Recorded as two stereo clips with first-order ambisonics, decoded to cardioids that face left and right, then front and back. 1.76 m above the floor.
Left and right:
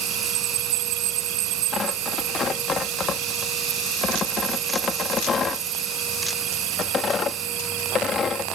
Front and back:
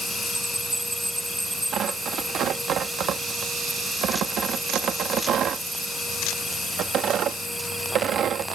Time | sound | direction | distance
0.0 | an insect | 90° right | ?
1.7 | tearing paper | 145° left | ?